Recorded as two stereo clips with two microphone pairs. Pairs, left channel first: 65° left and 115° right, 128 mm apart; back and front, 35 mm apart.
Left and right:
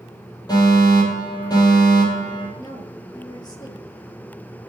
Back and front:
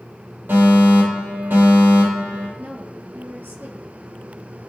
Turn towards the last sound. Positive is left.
turn(degrees=5)